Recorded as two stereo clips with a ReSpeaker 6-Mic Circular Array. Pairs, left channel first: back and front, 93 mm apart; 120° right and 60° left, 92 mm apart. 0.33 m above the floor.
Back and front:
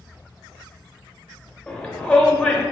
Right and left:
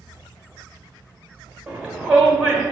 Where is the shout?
130° left, 0.8 m.